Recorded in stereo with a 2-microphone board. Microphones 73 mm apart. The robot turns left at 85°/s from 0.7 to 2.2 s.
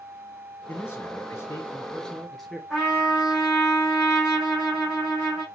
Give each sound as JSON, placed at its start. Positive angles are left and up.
{"t": 0.7, "sound": "a man speaking", "azimuth_deg": 130, "distance_m": 1.6}
{"t": 2.7, "sound": "a trumpet", "side_deg": -10, "distance_m": 3.0}